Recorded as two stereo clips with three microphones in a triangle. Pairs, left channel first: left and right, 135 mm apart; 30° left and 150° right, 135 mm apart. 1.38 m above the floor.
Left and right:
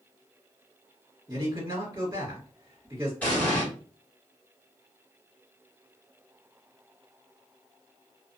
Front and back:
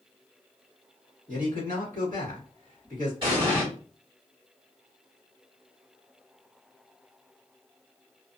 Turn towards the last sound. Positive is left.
turn(degrees=170)